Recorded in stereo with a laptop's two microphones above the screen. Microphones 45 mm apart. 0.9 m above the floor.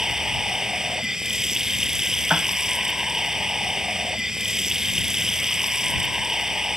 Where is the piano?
35° right (ahead or behind).